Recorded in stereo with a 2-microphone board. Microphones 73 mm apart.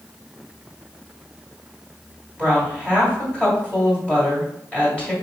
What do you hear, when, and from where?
2.4 s a woman speaking: 15° left (ahead or behind), 1.9 m